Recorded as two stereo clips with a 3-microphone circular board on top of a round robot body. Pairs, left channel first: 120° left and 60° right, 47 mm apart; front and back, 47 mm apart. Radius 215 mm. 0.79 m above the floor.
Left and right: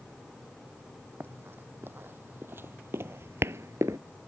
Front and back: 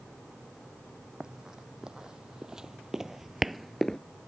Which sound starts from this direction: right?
Running footsteps, at 1.2 s.